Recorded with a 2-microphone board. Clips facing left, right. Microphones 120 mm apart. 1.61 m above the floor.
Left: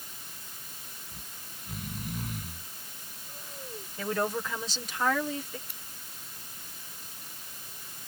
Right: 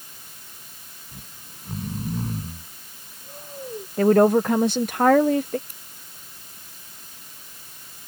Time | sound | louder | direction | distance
1.1 | snoring | right 3 dB | 35° right (ahead or behind) | ?
4.0 | a woman speaking | right 15 dB | 55° right (ahead or behind) | ?
5.7 | scissors | even | 45° right (ahead or behind) | ?